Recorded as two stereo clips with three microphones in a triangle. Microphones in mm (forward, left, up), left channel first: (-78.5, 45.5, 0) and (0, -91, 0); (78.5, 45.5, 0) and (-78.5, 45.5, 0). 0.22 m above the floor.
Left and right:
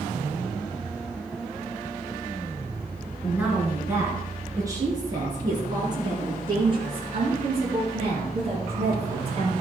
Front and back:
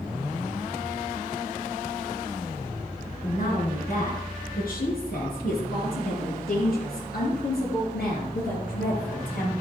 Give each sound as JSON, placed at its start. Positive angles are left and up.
{"t": 3.2, "sound": "a woman speaking", "azimuth_deg": 20, "distance_m": 3.5}